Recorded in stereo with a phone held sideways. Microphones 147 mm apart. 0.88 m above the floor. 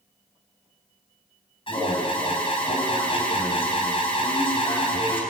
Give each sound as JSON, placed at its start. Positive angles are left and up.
{"t": 1.7, "sound": "an alarm", "side_deg": 35, "distance_m": 4.5}